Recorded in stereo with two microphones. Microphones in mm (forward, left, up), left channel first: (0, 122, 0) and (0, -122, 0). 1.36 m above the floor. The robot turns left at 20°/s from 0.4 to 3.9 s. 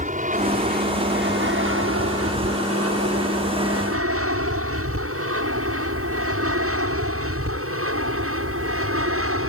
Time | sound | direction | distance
0.0 | an aircraft | 30° right (ahead or behind) | ?